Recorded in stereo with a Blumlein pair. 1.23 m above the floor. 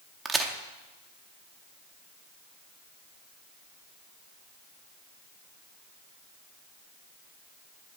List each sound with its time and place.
0.2 s a crack: 15° right, 0.8 m